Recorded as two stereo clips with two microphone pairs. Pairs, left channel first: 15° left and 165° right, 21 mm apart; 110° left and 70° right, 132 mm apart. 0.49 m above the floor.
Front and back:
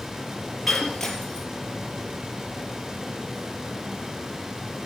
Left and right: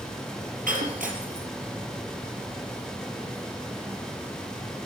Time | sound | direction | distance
0.7 | breaking glass | 60° right | 3.5 m